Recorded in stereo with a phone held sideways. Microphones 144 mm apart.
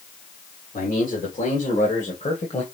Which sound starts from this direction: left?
A man speaking, at 0.7 s.